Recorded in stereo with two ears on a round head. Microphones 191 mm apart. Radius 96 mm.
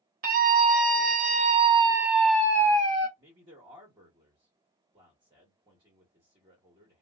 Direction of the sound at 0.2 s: 40° right (ahead or behind).